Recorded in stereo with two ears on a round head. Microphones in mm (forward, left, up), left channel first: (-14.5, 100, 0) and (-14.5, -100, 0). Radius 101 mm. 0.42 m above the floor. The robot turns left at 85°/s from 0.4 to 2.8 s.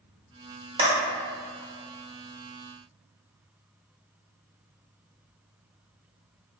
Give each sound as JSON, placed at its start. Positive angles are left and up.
{"t": 0.8, "sound": "a clap", "side_deg": -25, "distance_m": 0.9}